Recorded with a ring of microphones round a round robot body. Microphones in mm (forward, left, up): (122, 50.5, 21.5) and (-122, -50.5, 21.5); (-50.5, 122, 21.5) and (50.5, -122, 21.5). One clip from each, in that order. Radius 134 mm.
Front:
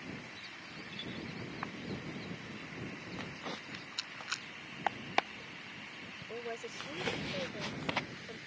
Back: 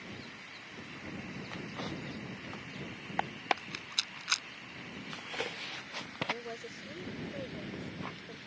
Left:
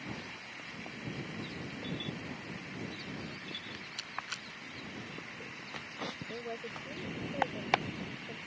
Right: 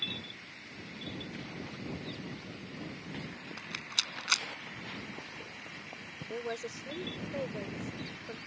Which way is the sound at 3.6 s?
95° right.